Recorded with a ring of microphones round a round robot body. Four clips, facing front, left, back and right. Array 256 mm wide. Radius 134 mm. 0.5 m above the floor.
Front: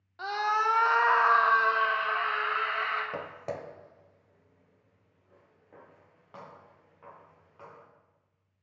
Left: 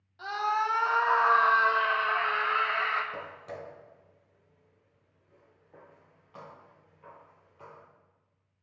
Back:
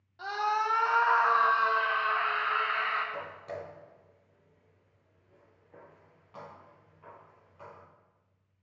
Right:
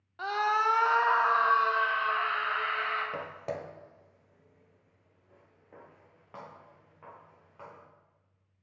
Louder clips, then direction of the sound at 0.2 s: Right 1 dB, front 2 dB; 60° right.